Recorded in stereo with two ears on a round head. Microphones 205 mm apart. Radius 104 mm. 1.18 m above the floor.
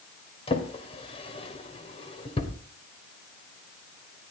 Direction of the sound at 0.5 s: 25° left (ahead or behind).